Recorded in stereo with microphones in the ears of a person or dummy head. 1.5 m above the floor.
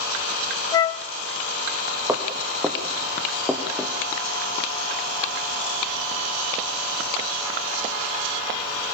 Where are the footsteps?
10° right (ahead or behind), 3.5 m; by 3.9 s 5° left (ahead or behind), 3 m.